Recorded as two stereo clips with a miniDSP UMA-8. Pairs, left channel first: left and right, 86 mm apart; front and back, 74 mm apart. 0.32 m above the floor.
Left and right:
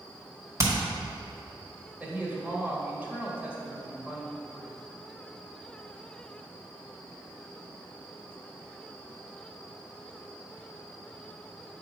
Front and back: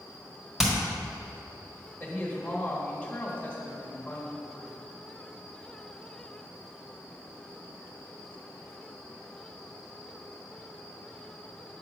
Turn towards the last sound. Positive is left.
turn(degrees=-45)